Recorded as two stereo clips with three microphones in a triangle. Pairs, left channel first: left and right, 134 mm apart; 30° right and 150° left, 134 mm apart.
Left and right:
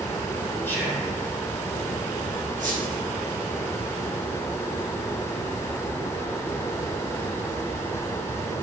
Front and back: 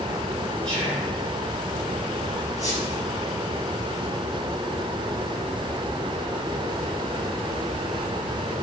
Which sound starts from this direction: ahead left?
Whispering, at 0.7 s.